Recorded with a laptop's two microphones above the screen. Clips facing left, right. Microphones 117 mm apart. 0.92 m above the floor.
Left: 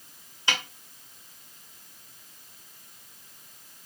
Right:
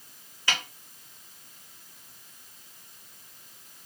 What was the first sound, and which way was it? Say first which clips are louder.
A snare drum: left 1 dB; 20° left (ahead or behind).